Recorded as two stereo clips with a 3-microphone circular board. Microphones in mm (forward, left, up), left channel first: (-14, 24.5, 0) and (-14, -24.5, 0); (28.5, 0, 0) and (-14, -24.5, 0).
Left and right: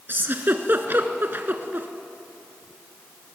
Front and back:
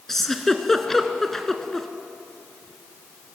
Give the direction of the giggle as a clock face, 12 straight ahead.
2 o'clock.